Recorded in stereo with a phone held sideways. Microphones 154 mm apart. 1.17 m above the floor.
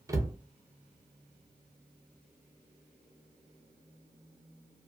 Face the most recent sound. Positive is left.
turn(degrees=-20)  # may be behind; listen again after turning